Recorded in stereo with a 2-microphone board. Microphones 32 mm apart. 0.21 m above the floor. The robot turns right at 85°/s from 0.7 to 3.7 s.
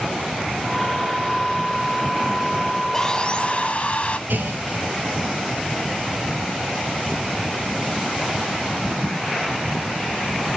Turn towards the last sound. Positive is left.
turn(degrees=-80)